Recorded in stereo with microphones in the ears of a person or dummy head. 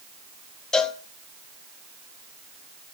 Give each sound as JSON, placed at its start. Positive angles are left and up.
{"t": 0.7, "sound": "a cowbell", "side_deg": 5, "distance_m": 0.7}